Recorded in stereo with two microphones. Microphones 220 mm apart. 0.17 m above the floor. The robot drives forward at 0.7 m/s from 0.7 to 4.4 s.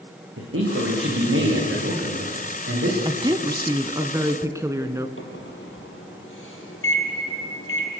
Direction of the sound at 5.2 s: 70° left (ahead or behind).